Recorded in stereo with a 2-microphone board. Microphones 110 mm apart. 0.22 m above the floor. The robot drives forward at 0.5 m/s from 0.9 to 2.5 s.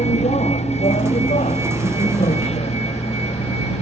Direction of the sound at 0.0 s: 75° left (ahead or behind).